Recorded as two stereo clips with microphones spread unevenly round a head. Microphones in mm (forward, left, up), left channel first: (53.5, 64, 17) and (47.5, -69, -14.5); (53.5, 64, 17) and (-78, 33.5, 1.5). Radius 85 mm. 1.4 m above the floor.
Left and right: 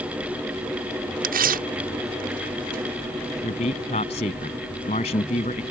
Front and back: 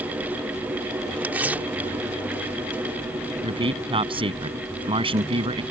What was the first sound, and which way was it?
Tearing paper, 85° right.